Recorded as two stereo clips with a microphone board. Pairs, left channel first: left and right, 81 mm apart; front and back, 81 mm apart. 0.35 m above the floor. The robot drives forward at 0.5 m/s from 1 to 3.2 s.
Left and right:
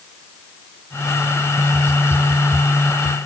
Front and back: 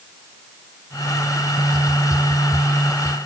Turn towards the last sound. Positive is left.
No sound to turn to.